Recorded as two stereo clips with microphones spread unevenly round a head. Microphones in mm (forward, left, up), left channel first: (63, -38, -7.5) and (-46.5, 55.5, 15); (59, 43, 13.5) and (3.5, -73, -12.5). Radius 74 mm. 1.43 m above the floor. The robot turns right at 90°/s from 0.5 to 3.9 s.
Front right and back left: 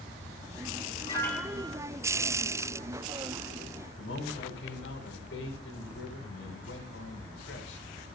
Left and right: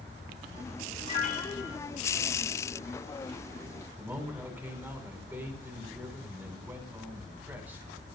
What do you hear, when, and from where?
1.1 s a piano: 20° left, 7 m; by 1.8 s 85° left, 7 m
4.0 s a man speaking: 35° right, 9.5 m